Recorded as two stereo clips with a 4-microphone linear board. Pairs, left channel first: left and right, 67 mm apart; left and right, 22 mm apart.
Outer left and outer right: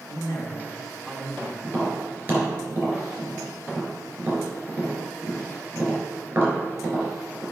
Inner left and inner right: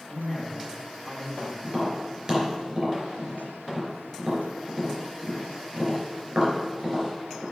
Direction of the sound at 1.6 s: 25° right (ahead or behind).